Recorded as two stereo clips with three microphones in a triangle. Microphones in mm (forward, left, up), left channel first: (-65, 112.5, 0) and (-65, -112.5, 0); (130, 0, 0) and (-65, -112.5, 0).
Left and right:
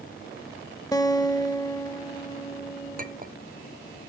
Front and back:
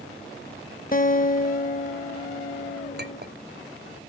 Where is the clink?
130° right, 0.8 m.